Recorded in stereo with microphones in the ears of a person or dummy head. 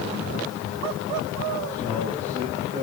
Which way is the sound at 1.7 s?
30° right (ahead or behind).